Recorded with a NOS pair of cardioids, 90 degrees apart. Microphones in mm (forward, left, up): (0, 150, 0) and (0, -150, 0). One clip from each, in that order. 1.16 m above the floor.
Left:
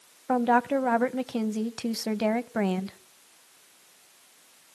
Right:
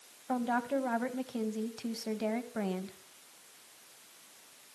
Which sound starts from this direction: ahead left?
A woman speaking, at 0.3 s.